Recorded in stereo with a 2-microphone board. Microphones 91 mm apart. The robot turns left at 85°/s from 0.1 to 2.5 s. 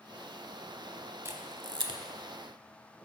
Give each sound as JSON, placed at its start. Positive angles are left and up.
{"t": 1.2, "sound": "a camera shutter", "side_deg": -30, "distance_m": 0.7}